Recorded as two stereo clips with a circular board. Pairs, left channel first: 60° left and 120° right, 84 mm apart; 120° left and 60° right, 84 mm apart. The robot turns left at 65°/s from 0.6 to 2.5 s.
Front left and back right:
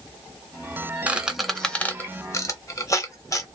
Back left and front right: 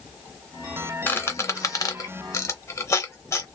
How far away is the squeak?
About 0.7 m.